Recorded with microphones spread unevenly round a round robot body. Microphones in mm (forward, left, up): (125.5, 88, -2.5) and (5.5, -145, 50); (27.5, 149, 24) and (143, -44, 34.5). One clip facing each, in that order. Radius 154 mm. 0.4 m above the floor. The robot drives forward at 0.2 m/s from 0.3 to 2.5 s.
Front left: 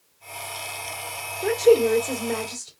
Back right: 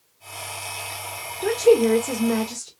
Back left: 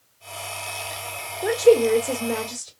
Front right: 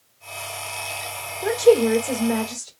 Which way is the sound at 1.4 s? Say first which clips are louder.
Back right 1 dB, even; 145° right.